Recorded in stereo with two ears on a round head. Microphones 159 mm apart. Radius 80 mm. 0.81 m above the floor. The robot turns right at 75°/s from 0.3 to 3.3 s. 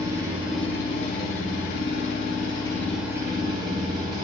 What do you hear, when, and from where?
0.0 s an engine running: 20° right, 1.7 m; by 4.2 s 155° right, 1.7 m